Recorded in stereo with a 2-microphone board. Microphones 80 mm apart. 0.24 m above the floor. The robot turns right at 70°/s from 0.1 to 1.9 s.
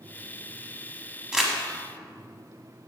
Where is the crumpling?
10° right (ahead or behind), 1.0 m; by 1.5 s 5° left (ahead or behind), 1.0 m.